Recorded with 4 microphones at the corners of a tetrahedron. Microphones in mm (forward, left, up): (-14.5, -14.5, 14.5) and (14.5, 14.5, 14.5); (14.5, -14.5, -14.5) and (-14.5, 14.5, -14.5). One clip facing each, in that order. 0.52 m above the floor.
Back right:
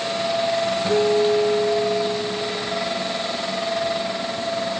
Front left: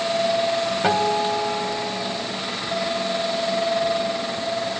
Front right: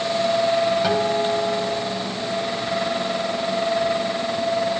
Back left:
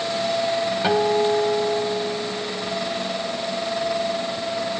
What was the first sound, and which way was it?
A guitar, 65° left.